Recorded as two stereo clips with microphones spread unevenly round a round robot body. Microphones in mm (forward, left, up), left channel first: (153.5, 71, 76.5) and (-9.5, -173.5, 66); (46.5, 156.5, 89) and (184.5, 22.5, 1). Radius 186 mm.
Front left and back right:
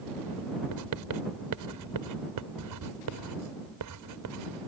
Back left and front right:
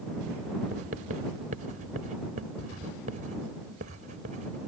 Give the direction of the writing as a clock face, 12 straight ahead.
4 o'clock.